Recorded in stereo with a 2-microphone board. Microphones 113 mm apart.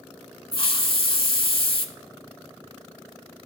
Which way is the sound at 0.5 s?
55° left (ahead or behind).